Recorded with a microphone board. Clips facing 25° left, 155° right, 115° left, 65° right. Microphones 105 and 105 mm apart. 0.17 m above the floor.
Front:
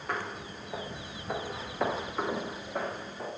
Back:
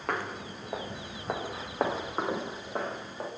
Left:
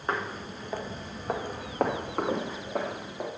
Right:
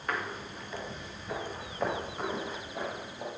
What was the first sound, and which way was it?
Footsteps, 175° left.